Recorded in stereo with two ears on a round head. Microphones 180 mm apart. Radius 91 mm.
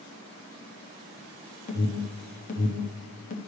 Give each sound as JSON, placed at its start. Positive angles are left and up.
{"t": 1.7, "sound": "an alarm", "side_deg": 40, "distance_m": 1.0}